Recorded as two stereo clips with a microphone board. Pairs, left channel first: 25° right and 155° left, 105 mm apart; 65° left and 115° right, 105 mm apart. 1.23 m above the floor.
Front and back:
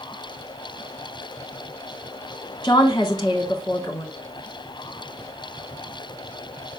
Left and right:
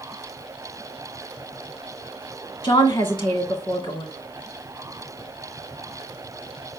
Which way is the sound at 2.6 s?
30° left.